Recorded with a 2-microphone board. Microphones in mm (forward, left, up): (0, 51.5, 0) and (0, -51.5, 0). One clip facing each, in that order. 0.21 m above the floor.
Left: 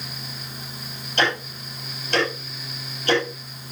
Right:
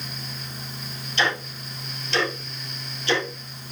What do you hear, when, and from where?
1.2 s ticking: 50° left (ahead or behind), 6 m